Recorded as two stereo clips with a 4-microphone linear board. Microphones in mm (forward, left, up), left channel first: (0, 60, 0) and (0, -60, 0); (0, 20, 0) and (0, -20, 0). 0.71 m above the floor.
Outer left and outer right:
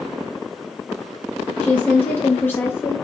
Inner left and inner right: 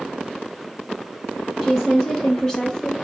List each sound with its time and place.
1.6 s a woman speaking: 10° left (ahead or behind), 1.4 m; by 3.0 s 20° left (ahead or behind), 0.8 m